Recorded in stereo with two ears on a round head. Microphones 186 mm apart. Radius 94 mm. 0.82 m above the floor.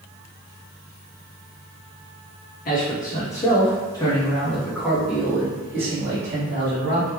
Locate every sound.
2.6 s a man speaking: 45° left (ahead or behind), 1.3 m; by 7.1 s 25° right (ahead or behind), 2 m